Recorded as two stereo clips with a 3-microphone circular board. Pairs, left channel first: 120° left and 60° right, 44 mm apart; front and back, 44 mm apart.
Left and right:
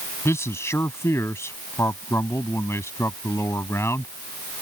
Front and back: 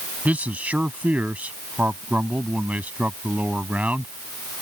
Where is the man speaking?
125° left.